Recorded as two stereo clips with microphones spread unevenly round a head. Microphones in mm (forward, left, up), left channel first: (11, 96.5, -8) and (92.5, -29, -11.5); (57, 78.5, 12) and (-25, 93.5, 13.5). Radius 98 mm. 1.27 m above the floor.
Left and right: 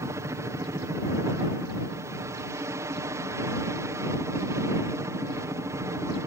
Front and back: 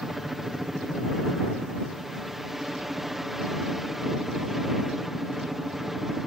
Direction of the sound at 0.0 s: 105° right.